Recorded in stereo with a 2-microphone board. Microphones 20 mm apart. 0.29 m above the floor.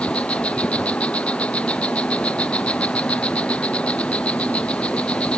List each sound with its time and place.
0.0 s an insect: 85° left